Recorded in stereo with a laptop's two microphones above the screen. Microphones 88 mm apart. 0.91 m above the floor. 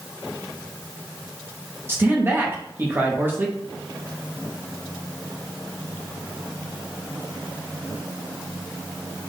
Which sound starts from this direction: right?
A man speaking, at 1.9 s.